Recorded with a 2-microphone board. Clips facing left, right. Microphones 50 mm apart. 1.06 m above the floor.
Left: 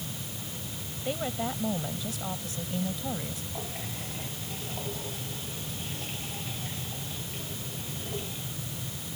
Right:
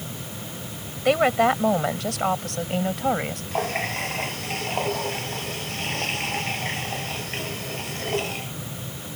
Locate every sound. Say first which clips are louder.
1.1 s a woman speaking: right 14 dB; 80° right; by 3.4 s 65° right (ahead or behind)
3.5 s a running tap: right 13 dB; 75° right (ahead or behind)